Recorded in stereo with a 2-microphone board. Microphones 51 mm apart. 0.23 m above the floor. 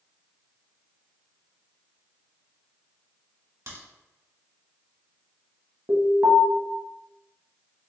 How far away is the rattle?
No rattle in this recording.